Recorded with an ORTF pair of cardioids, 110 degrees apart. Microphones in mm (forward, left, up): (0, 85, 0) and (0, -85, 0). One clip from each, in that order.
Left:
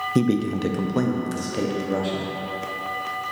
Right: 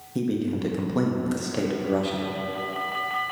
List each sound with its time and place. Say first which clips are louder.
0.1 s a man speaking: even; 40° left, 0.6 m; by 2.3 s 15° right, 1.3 m